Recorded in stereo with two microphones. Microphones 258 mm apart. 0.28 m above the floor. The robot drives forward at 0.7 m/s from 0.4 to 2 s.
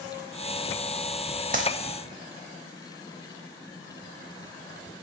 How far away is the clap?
About 0.8 m.